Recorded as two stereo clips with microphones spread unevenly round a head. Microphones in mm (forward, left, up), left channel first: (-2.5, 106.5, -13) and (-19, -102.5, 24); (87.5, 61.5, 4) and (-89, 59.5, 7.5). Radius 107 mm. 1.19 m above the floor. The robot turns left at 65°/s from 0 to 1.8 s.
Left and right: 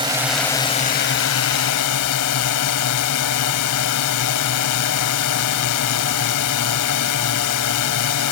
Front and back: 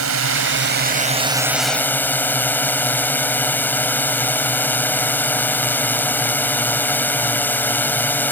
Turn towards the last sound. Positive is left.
turn(degrees=80)